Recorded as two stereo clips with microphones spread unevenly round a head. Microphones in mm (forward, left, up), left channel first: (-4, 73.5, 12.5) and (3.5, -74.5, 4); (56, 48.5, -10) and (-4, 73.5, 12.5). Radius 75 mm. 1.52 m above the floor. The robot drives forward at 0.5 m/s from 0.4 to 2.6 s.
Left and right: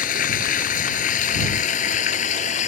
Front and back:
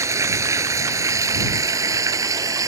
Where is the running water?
130° left; by 2.7 s 135° left.